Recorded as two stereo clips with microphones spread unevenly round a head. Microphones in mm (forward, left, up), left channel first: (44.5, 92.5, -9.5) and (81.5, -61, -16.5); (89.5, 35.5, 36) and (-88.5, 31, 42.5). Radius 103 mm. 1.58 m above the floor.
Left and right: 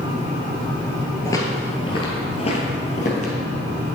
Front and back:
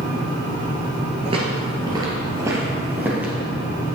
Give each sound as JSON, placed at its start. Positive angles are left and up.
{"t": 1.2, "sound": "footsteps", "azimuth_deg": 155, "distance_m": 1.8}